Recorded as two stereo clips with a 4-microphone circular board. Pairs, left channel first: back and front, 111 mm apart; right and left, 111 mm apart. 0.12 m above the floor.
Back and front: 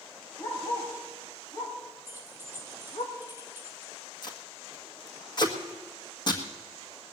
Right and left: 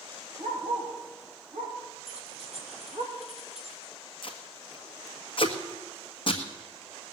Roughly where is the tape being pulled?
Behind right.